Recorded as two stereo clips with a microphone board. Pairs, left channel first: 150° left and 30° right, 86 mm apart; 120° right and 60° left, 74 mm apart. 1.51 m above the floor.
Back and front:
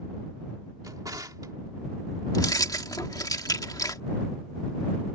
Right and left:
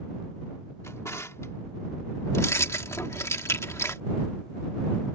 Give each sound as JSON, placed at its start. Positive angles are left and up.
{"t": 0.8, "sound": "a drawer", "azimuth_deg": -70}
{"t": 2.3, "sound": "keys jangling", "azimuth_deg": -170}